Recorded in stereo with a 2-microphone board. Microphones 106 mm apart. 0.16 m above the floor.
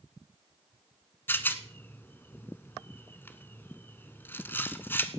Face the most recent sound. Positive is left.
turn(degrees=20)  # may be behind; listen again after turning